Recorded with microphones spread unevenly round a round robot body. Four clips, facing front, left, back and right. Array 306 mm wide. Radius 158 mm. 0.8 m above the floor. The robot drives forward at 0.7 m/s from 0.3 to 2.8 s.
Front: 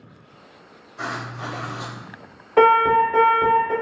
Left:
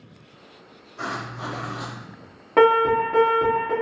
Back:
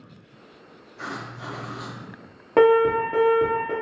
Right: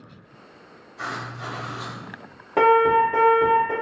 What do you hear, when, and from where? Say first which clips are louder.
1.0 s writing: left 1 dB, front 5 dB; 30° left, 1.3 m; by 2.0 s 55° left, 0.8 m
2.6 s an alarm: even, front 2 dB; 170° left, 1.6 m; by 3.7 s 175° left, 1.7 m